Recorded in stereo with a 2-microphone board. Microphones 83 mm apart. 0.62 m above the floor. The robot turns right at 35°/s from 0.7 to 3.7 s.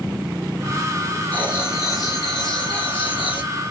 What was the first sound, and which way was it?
Writing, 20° left.